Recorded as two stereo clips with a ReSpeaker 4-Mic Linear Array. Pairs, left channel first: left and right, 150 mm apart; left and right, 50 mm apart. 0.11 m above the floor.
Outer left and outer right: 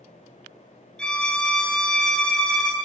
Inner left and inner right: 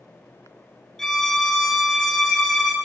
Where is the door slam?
I don't hear a door slam.